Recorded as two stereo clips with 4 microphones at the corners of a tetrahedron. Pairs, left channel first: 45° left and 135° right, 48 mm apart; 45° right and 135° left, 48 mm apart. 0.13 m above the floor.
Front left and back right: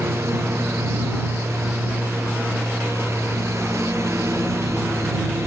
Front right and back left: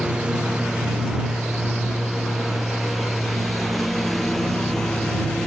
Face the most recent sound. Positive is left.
turn(degrees=-125)